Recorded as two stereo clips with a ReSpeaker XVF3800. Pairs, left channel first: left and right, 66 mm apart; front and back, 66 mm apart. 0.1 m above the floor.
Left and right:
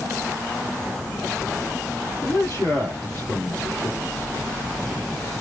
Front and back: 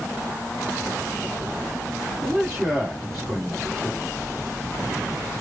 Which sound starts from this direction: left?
A man speaking, at 2.2 s.